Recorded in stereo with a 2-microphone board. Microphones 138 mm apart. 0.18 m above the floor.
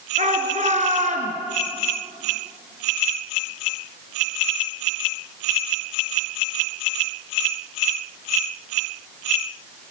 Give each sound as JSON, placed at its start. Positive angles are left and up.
{"t": 0.2, "sound": "a shout", "side_deg": -60, "distance_m": 3.0}